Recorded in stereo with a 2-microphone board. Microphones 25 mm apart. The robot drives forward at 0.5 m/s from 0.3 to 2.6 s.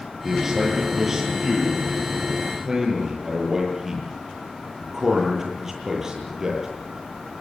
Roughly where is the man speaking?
Right.